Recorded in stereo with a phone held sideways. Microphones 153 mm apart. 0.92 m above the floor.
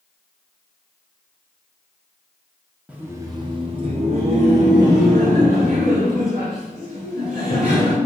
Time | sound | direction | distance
2.9 | laughter | 10° right (ahead or behind) | 0.6 m